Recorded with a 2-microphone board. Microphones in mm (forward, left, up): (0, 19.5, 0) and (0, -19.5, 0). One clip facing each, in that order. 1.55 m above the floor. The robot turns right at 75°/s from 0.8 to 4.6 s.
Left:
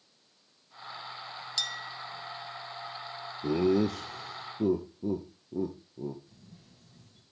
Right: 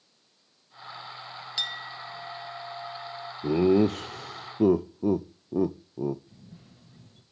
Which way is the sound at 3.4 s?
10° right (ahead or behind).